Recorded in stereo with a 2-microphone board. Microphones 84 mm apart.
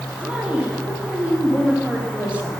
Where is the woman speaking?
15° right (ahead or behind), 8 m.